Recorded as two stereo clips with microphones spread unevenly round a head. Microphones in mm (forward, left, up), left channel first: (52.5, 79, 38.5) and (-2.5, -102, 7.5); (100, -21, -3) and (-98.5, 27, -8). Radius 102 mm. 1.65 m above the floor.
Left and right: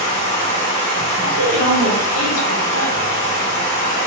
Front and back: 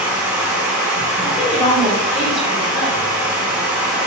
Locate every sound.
0.0 s running water: 90° left, 1.4 m
1.2 s a woman speaking: 80° left, 1.2 m